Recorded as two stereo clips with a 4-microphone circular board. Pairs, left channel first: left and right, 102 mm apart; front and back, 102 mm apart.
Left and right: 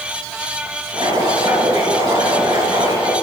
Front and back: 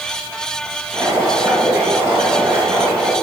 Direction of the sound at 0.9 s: 120° right.